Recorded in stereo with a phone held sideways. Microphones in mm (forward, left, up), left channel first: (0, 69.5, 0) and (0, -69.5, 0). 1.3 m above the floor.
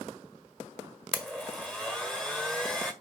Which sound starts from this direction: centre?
A blender, at 1.1 s.